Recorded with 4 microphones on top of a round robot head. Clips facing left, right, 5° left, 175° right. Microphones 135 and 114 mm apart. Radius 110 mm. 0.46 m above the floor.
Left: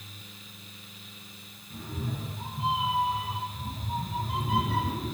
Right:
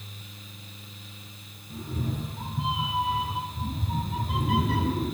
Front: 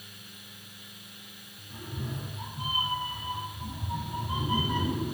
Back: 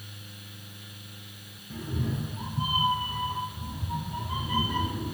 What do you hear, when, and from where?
1.7 s a cat meowing: 160° right, 1.4 m; by 5.2 s 55° right, 1.6 m